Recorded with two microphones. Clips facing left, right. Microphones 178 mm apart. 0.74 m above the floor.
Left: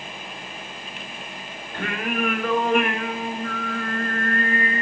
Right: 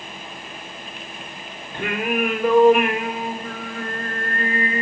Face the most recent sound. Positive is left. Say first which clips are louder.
# right 4 dB
turn(degrees=-20)  # may be behind; listen again after turning